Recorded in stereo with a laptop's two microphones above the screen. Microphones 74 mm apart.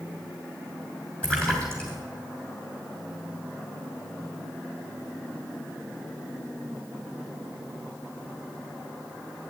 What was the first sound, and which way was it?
A splash, 10° left (ahead or behind).